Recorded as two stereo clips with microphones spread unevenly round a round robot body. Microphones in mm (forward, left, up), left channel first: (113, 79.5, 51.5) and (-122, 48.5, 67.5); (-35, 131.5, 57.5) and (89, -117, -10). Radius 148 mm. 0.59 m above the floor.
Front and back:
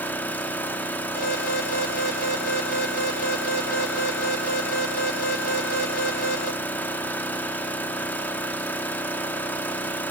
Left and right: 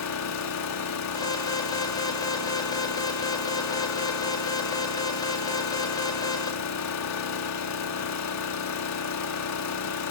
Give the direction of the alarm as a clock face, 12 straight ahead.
11 o'clock.